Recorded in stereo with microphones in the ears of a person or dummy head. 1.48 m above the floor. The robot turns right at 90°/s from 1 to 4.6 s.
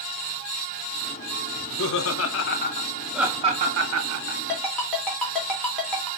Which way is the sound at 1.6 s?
35° left (ahead or behind).